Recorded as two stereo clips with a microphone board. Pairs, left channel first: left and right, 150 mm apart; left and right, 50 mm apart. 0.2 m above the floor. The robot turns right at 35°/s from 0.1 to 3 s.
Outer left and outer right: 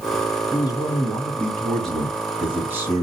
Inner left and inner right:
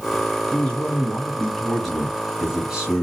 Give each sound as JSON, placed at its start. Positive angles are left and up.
{"t": 0.5, "sound": "a man speaking", "azimuth_deg": 130, "distance_m": 1.4}